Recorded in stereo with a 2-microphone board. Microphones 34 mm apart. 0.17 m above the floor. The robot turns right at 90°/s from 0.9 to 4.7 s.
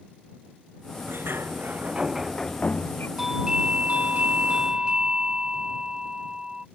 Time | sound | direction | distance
1.1 | a sliding door | 110° right | ?
3.2 | a doorbell | 175° right | ?